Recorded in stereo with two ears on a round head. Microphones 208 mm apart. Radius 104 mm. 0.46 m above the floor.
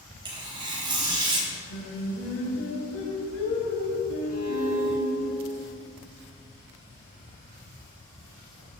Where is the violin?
40° left (ahead or behind), 3.5 m.